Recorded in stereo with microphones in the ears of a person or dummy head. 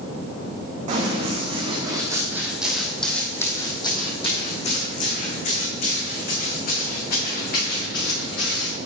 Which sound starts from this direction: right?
Running footsteps, at 0.9 s.